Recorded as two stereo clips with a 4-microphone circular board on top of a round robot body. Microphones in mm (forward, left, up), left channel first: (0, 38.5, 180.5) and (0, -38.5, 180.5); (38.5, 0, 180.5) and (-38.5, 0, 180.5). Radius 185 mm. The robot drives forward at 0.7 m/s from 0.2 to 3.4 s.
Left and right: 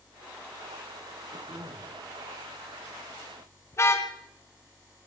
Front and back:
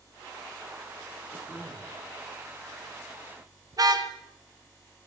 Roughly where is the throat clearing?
Right.